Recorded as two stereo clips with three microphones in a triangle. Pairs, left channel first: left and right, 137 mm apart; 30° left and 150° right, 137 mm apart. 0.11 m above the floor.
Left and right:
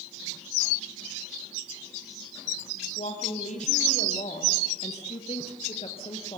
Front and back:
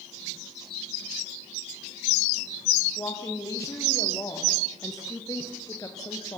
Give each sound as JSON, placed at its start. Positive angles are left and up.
{"t": 3.0, "sound": "a woman speaking", "azimuth_deg": 95, "distance_m": 4.0}